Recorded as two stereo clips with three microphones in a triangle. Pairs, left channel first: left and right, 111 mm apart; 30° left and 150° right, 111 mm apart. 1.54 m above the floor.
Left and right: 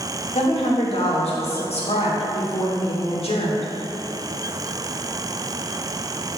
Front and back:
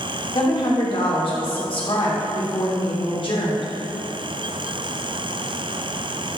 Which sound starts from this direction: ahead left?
A woman speaking, at 0.3 s.